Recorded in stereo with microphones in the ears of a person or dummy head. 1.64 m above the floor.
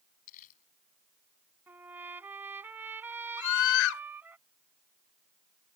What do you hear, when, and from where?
0.3 s crumpling: 40° left (ahead or behind)
1.7 s a trumpet: 15° right (ahead or behind)
3.4 s a scream: 80° left